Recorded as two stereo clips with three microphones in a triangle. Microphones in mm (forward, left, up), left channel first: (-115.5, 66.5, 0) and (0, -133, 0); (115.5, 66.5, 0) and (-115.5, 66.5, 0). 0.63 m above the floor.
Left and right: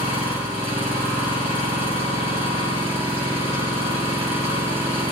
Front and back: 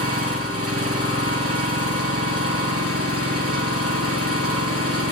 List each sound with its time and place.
0.0 s an engine running: straight behind, 6.5 m